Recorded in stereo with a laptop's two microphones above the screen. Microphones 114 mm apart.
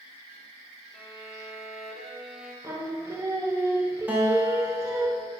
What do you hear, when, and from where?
0.9 s a violin: centre (ahead or behind), 1.7 m
2.6 s singing: 25° right (ahead or behind), 0.8 m
4.1 s a guitar: 15° right (ahead or behind), 1.9 m